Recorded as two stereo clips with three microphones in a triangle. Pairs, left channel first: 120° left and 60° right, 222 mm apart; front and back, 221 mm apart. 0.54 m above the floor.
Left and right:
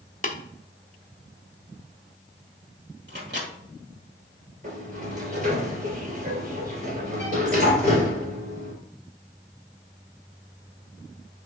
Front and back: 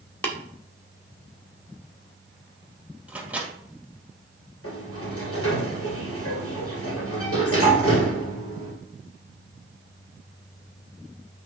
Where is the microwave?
95° right, 1.9 m.